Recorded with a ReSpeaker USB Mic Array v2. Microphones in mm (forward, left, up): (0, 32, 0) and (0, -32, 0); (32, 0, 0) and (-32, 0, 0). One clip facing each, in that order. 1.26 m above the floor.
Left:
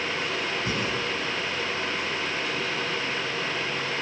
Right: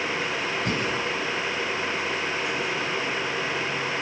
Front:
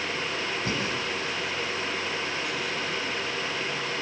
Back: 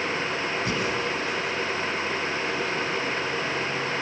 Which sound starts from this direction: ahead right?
Breathing, at 0.7 s.